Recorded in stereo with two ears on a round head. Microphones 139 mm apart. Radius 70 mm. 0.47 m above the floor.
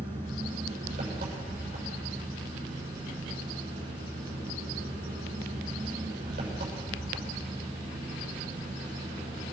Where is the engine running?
60° right (ahead or behind), 7 m.